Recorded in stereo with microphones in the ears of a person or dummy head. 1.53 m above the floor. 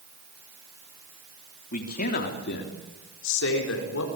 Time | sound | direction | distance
1.7 | a man speaking | 45° left (ahead or behind) | 3.5 m